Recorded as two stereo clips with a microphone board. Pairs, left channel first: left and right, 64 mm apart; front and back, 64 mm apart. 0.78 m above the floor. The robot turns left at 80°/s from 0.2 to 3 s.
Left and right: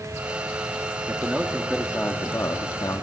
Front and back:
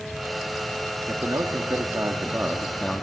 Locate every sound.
1.1 s a man speaking: 135° right, 1.2 m; by 3.0 s 70° left, 1.2 m